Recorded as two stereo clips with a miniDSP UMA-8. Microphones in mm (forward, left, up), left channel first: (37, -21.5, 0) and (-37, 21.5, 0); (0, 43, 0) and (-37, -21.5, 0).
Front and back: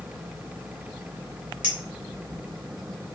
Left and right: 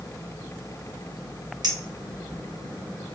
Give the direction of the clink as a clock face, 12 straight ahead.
5 o'clock.